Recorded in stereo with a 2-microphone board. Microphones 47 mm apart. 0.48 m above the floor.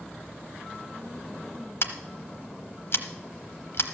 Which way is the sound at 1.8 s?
65° left (ahead or behind).